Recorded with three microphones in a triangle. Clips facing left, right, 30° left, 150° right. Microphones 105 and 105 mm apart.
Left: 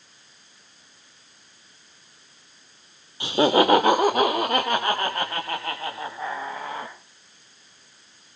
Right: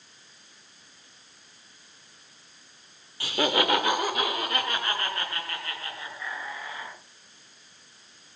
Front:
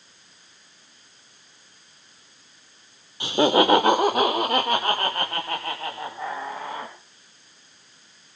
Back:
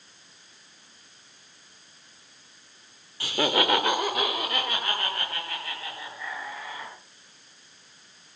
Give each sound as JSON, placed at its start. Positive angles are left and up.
{"t": 3.2, "sound": "laughter", "azimuth_deg": 60, "distance_m": 0.8}